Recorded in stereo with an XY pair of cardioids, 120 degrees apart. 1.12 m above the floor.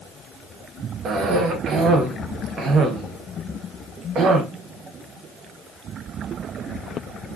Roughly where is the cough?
Ahead right.